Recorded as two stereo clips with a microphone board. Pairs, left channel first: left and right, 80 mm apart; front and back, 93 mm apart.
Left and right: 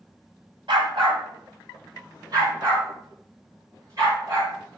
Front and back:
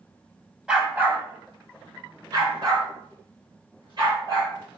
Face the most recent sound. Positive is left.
turn(degrees=-140)